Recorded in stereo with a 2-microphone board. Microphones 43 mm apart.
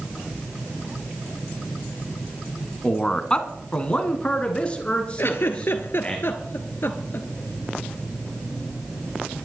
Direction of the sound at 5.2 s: 60° left (ahead or behind).